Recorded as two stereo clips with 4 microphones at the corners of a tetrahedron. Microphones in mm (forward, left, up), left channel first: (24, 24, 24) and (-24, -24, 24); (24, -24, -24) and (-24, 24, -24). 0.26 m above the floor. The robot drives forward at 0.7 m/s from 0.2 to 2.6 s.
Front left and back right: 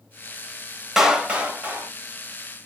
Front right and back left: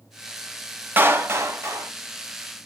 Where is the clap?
145° left, 0.8 m; by 1.9 s 170° left, 1.3 m.